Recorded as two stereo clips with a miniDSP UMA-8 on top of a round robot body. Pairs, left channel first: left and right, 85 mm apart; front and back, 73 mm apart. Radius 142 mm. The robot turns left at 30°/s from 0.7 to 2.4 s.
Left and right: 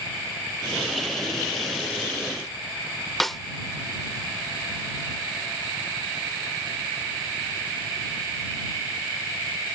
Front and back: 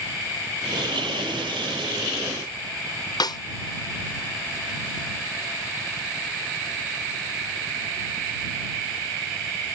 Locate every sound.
3.2 s a snare drum: 5° left